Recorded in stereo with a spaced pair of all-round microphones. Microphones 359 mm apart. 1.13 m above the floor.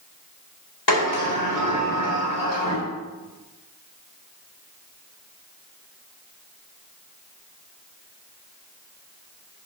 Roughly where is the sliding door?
Left.